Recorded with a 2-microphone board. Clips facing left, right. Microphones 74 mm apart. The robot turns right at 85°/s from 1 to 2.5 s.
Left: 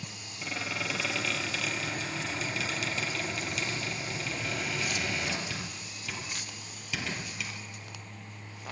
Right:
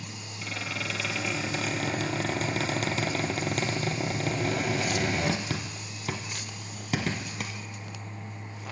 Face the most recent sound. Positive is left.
turn(degrees=-50)  # may be behind; listen again after turning